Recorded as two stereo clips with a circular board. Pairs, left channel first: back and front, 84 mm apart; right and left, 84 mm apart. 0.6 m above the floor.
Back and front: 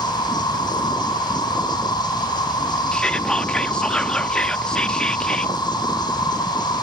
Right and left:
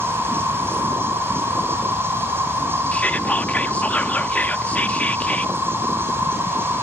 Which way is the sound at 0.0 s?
150° left.